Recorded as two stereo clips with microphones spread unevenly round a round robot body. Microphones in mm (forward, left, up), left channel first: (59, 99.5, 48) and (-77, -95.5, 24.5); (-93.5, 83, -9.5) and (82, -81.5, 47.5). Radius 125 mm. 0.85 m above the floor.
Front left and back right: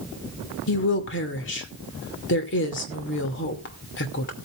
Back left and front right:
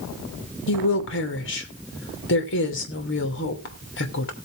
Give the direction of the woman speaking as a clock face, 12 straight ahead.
9 o'clock.